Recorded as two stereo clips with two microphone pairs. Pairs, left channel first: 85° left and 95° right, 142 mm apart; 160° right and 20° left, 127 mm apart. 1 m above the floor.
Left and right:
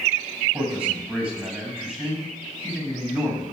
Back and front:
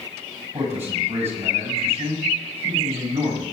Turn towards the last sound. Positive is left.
turn(degrees=-15)